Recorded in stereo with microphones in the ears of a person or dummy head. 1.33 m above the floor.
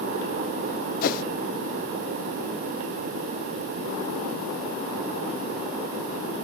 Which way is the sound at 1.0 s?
45° left (ahead or behind).